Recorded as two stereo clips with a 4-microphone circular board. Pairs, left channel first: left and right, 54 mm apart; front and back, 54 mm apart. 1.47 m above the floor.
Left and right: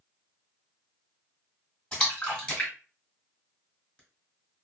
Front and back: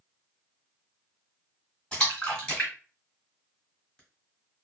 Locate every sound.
1.9 s a splash: 45° left, 1.4 m